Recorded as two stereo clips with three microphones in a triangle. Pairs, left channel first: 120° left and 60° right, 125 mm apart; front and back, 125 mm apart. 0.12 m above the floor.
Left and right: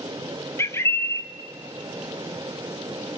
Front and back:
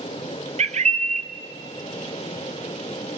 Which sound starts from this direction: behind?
A bird, at 0.6 s.